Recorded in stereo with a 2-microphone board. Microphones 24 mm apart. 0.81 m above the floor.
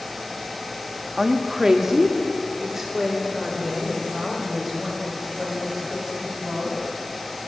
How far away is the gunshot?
I don't hear a gunshot.